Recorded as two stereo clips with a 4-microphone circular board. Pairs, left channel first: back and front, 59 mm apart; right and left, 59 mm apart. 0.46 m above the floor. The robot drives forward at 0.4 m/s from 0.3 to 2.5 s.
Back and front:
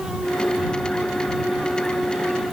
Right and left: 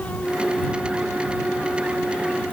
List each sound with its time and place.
Only background noise.